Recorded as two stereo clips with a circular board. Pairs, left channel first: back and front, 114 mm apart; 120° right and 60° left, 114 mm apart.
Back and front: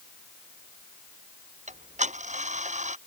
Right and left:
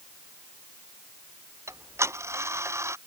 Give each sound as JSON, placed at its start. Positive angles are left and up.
{"t": 1.7, "sound": "ticking", "azimuth_deg": -10}